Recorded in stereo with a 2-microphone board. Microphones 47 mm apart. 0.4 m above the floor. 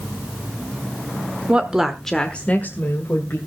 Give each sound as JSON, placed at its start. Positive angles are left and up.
{"t": 1.5, "sound": "a woman speaking", "side_deg": -25, "distance_m": 1.2}